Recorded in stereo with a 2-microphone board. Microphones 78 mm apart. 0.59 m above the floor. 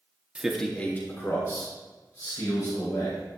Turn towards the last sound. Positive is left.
turn(degrees=50)  # may be behind; listen again after turning